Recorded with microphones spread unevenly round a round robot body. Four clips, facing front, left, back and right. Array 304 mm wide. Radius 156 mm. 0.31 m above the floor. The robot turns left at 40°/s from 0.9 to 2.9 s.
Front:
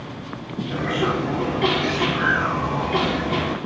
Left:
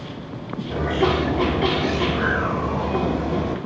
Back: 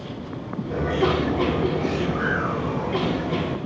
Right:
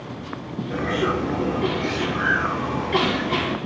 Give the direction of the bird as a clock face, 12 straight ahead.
7 o'clock.